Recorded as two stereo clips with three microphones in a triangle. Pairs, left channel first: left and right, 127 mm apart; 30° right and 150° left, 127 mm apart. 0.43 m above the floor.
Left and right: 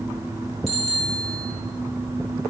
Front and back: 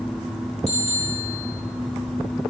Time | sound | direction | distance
0.7 | a bicycle bell | 5° left | 8 m